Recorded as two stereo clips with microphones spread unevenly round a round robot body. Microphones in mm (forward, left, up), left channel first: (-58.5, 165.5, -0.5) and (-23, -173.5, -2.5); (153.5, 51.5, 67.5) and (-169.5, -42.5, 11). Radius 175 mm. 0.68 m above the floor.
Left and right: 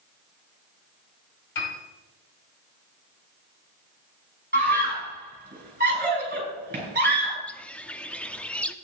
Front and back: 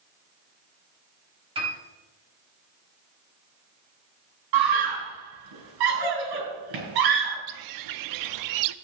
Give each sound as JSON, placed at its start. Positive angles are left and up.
{"t": 1.6, "sound": "a piano", "azimuth_deg": 120, "distance_m": 3.5}
{"t": 4.5, "sound": "a scream", "azimuth_deg": -150, "distance_m": 5.5}
{"t": 7.5, "sound": "a bird", "azimuth_deg": 180, "distance_m": 0.6}